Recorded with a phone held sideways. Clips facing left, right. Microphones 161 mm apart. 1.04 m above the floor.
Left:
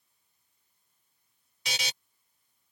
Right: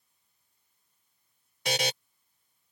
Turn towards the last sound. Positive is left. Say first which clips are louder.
# right 10 dB
turn(degrees=-55)  # may be behind; listen again after turning